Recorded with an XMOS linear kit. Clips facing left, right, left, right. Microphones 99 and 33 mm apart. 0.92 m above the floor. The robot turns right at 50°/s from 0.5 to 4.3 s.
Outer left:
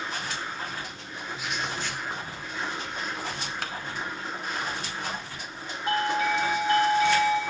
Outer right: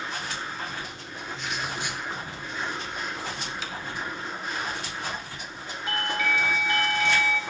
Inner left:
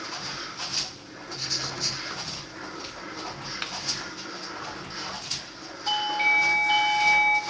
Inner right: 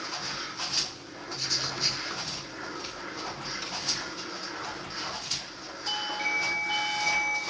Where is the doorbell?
35° left (ahead or behind), 1.4 m.